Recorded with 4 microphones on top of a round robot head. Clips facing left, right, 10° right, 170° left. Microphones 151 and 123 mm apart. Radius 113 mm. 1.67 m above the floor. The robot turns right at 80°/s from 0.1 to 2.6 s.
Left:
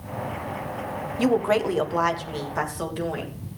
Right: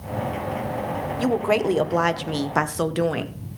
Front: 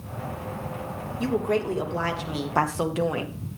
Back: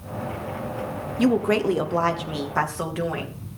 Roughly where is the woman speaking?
Behind.